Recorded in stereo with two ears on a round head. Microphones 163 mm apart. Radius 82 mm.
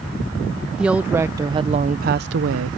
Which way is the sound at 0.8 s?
5° right (ahead or behind).